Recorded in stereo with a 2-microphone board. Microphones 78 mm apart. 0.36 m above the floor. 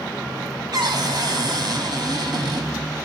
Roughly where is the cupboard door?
Right.